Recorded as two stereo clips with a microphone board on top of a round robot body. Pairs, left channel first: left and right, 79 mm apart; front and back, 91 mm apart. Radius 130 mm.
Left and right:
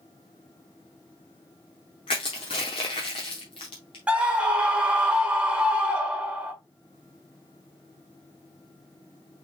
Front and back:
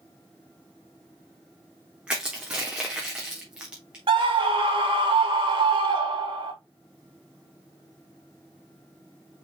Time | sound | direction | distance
2.1 | crushing | 100° left | 0.7 m
4.1 | a scream | 165° right | 1.7 m